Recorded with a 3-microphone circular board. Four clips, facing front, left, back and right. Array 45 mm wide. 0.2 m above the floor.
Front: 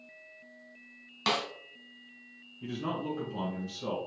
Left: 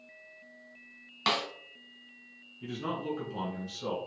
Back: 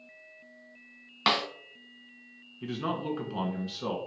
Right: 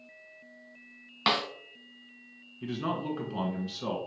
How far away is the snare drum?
About 1.0 m.